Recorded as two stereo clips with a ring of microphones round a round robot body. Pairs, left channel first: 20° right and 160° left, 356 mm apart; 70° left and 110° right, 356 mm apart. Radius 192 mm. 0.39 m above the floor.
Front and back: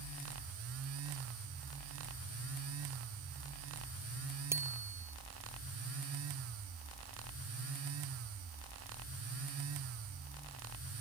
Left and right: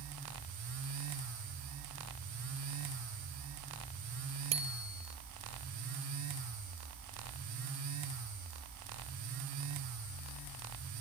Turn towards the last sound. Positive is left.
turn(degrees=-120)